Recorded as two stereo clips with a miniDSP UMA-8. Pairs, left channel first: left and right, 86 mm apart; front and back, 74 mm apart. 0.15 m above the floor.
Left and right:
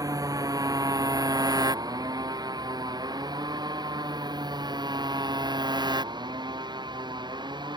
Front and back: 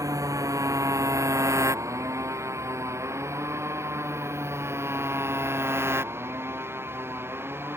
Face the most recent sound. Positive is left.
turn(degrees=-120)